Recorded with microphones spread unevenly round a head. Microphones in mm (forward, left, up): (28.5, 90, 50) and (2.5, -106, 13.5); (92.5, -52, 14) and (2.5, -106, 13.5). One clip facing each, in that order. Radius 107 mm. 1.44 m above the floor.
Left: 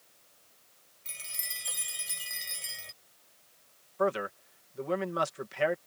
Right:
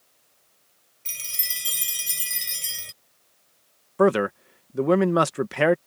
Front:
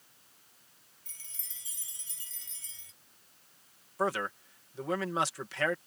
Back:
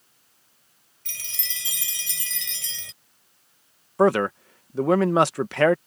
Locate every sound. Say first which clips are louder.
1.1 s a chime: right 3 dB, back 19 dB; 155° right
4.0 s a man speaking: right 11 dB, back 13 dB; 125° right